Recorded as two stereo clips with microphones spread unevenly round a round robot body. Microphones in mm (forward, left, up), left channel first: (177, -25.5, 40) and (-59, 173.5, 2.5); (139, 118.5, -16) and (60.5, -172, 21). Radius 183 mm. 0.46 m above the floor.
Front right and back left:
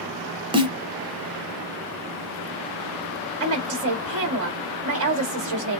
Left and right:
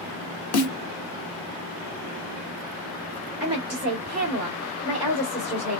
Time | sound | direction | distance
0.5 | a snare drum | 65° left | 1.5 m
3.4 | a woman speaking | 160° left | 1.3 m